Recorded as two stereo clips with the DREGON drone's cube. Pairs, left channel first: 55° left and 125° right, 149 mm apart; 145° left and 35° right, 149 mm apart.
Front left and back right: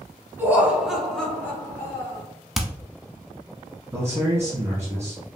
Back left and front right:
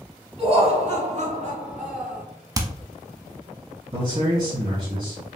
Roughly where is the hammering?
Ahead right.